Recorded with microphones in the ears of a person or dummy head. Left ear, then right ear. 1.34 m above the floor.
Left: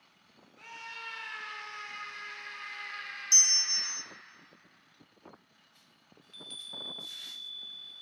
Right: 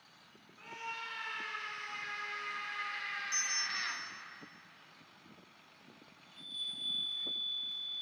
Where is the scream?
40° left (ahead or behind), 4.5 m; by 4.0 s 15° right (ahead or behind), 1.5 m.